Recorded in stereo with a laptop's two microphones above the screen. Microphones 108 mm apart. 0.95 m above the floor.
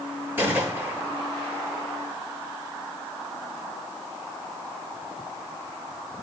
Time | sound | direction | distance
0.4 | a gunshot | 20° right (ahead or behind) | 8.5 m